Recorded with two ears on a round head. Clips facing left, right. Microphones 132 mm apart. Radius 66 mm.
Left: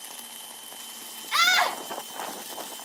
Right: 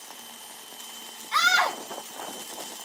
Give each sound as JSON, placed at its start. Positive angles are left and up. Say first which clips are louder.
{"t": 1.3, "sound": "a scream", "louder": "right 1 dB", "side_deg": 25, "distance_m": 1.8}